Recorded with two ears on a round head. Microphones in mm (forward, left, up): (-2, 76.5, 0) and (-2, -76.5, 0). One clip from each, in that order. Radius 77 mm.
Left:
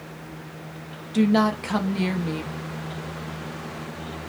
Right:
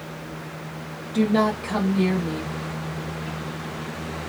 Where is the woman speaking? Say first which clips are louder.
Even; 30° left (ahead or behind), 0.8 m.